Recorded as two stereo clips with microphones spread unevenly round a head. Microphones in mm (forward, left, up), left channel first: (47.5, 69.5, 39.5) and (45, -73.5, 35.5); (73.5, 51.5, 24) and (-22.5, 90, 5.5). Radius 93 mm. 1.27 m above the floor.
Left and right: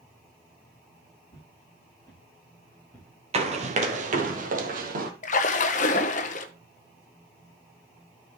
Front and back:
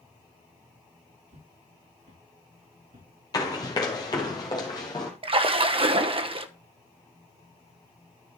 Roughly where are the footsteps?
Behind left.